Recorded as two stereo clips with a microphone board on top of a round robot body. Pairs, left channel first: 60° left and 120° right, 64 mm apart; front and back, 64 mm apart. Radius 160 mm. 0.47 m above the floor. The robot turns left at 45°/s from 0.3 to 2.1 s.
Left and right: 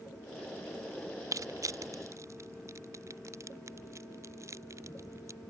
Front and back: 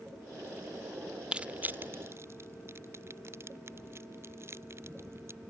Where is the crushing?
110° right; by 5.4 s 145° right.